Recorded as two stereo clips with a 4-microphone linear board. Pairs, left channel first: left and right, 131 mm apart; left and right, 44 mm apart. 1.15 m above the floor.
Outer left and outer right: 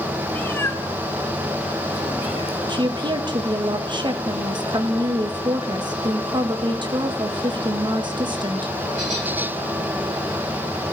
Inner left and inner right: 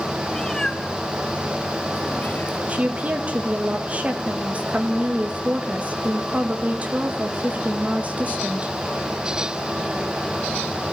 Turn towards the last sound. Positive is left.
turn(degrees=-35)  # may be behind; listen again after turning